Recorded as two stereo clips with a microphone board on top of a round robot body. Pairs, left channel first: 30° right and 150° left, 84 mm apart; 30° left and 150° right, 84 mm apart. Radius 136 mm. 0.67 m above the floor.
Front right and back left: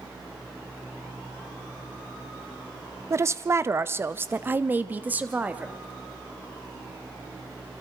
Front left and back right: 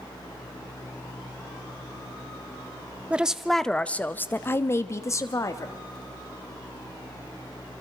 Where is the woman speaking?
145° left, 0.7 m; by 5.7 s 75° left, 1.6 m.